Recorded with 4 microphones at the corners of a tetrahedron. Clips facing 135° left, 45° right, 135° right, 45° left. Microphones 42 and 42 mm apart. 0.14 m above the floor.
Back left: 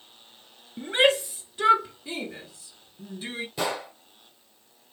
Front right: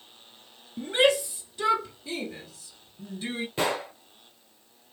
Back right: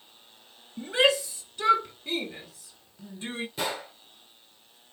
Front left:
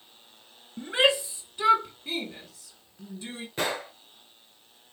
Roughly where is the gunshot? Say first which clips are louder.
Front right 2 dB, front left 4 dB; ahead.